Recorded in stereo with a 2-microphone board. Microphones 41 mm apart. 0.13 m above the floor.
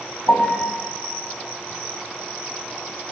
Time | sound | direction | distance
0.3 | a piano | 45° left (ahead or behind) | 3 m